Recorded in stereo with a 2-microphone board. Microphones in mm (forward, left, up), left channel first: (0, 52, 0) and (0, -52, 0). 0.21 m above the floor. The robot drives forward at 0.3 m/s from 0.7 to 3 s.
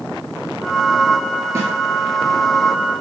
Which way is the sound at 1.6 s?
30° right (ahead or behind).